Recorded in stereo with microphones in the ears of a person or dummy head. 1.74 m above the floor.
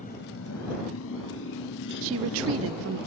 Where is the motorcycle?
40° left (ahead or behind); by 3.1 s 50° left (ahead or behind).